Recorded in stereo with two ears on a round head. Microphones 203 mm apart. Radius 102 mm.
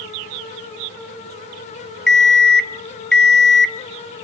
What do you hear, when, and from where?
2.1 s an alarm clock: centre (ahead or behind), 0.7 m